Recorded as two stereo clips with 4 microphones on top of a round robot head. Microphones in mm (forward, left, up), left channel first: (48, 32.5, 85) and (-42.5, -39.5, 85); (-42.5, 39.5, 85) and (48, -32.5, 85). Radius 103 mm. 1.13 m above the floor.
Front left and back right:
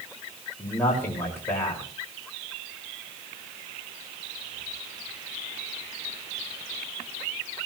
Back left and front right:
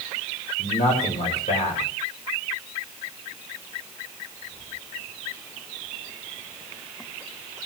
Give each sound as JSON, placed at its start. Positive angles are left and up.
{"t": 0.6, "sound": "a man speaking", "azimuth_deg": 110, "distance_m": 5.0}